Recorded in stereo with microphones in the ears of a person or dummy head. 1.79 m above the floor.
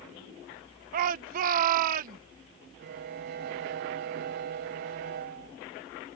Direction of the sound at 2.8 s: 55° right (ahead or behind).